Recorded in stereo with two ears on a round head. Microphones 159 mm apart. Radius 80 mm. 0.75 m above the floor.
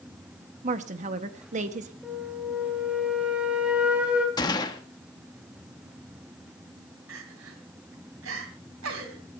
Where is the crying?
85° right, 3 m.